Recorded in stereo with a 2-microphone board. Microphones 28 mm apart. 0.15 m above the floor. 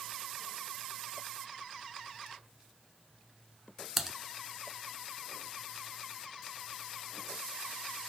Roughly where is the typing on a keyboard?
Centre.